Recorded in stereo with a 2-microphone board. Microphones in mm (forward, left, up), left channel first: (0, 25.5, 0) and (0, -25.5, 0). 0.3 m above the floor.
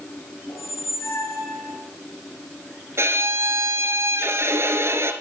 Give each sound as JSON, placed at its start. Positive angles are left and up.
{"t": 0.5, "sound": "a squeak", "side_deg": 75, "distance_m": 3.5}
{"t": 3.0, "sound": "a violin", "side_deg": -60, "distance_m": 1.7}